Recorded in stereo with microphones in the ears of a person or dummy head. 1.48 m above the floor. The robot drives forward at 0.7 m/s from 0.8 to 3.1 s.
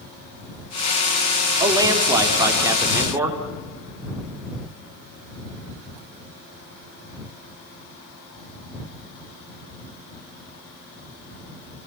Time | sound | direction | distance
1.6 | a man speaking | 30° right (ahead or behind) | 3 m